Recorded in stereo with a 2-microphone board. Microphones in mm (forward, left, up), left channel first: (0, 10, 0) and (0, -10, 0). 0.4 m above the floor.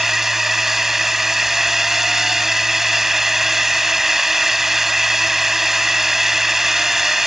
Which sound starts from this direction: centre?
A drone, at 0.0 s.